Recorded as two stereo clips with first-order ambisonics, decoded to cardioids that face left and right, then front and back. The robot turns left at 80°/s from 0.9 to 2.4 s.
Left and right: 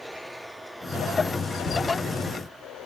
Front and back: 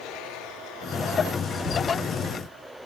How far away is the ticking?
About 4 m.